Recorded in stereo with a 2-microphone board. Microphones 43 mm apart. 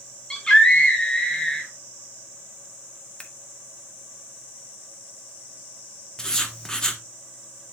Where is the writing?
15° left (ahead or behind), 0.9 m.